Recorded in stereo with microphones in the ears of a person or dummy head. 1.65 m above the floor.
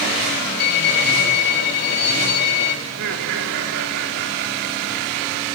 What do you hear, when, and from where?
0.6 s a violin: 55° left (ahead or behind), 3.5 m
2.9 s laughter: 65° right (ahead or behind), 3.5 m